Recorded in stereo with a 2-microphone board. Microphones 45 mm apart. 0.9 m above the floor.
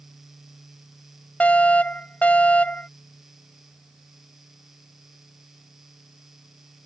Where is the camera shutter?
I don't hear a camera shutter.